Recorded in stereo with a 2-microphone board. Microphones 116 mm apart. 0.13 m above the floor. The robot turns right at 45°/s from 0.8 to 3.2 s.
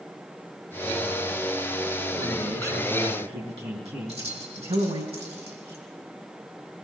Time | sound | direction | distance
2.1 | a man speaking | 130° right | 4.5 m
4.1 | keys jangling | 60° right (ahead or behind) | 4.5 m